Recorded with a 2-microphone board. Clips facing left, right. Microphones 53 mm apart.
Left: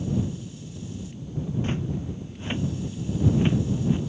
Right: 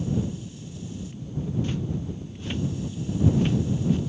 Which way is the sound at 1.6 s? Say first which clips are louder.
Left 1 dB; 35° left (ahead or behind).